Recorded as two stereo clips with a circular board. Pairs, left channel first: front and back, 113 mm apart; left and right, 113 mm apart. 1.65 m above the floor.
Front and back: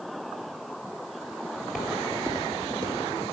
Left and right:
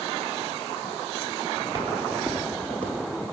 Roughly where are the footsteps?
Right.